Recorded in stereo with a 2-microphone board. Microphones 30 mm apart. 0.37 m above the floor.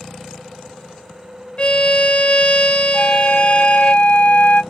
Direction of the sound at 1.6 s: 40° left (ahead or behind).